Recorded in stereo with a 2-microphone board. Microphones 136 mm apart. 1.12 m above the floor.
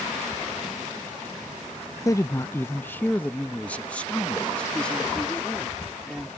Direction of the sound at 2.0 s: 25° left (ahead or behind).